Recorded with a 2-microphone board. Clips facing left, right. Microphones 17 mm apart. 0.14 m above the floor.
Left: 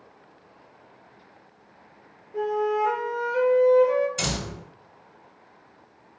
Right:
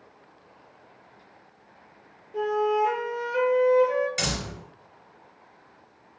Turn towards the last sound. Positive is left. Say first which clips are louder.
# even
turn(degrees=-50)  # may be behind; listen again after turning